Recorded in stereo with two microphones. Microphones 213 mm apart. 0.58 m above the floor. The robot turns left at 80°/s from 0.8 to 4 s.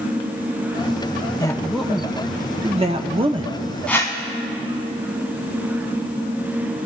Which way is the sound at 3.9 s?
5° left (ahead or behind).